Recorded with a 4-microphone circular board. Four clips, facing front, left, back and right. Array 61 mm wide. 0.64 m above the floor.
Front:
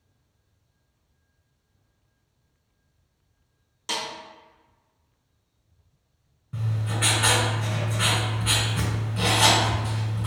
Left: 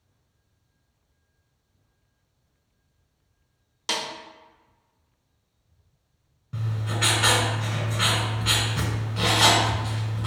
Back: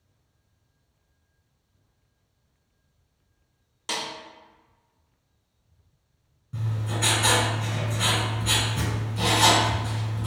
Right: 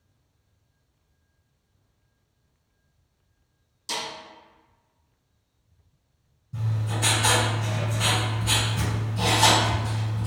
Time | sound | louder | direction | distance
3.9 | a snare drum | left 3 dB, front 1 dB | 95° left | 0.9 m
6.5 | writing | left 1 dB, front 1 dB | 65° left | 1.9 m